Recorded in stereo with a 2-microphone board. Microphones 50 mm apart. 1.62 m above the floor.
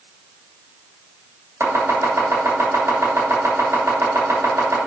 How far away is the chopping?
About 3 m.